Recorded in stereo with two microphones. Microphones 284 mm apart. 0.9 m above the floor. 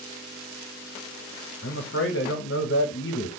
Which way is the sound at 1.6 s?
45° left (ahead or behind).